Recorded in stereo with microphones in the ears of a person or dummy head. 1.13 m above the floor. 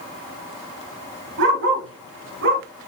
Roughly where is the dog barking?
Right.